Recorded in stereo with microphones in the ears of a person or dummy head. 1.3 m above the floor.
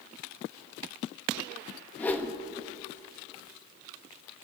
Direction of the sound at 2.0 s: 10° left (ahead or behind).